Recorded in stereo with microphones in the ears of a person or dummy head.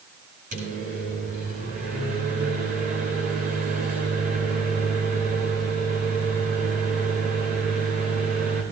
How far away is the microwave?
About 5 m.